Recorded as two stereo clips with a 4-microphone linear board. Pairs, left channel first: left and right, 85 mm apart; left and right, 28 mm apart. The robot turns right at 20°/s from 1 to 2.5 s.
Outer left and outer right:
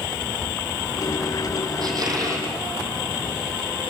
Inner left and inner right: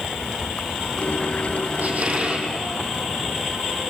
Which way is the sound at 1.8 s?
55° right (ahead or behind).